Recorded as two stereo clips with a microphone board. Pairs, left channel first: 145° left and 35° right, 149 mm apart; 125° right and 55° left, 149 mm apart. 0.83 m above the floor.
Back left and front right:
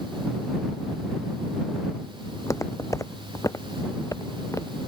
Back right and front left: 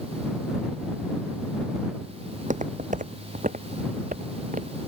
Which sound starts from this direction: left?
Footsteps, at 2.3 s.